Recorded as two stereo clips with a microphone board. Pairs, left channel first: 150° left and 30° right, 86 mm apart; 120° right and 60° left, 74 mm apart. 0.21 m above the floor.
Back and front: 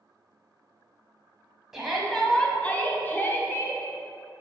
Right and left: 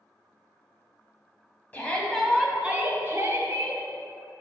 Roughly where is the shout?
Right.